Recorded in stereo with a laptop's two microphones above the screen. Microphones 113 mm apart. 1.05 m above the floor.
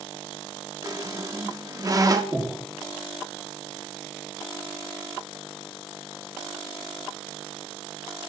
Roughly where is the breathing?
Centre.